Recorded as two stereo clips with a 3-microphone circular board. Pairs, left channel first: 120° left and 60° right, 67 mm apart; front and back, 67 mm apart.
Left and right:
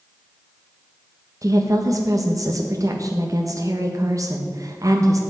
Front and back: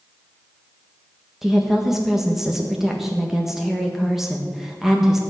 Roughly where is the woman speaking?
Right.